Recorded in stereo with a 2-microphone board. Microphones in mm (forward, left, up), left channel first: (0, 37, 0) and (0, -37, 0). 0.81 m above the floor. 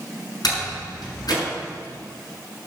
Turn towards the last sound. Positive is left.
turn(degrees=60)  # may be behind; listen again after turning